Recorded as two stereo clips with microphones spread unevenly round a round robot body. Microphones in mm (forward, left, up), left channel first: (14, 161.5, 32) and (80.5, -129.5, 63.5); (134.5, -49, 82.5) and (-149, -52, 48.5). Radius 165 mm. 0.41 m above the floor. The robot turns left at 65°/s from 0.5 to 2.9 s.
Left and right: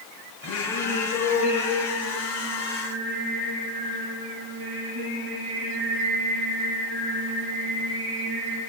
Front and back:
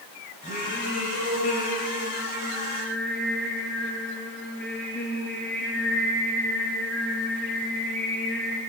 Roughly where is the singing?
Left.